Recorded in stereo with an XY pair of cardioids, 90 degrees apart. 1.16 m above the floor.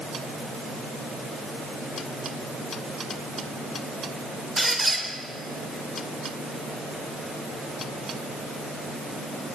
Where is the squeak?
20° right, 1.8 m.